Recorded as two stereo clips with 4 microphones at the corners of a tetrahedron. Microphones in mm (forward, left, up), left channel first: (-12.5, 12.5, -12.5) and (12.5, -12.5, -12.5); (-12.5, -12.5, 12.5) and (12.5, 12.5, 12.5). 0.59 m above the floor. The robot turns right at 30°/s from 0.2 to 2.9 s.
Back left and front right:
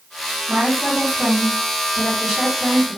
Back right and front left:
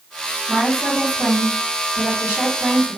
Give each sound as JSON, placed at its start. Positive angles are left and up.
{"t": 0.5, "sound": "a woman speaking", "azimuth_deg": -5, "distance_m": 1.5}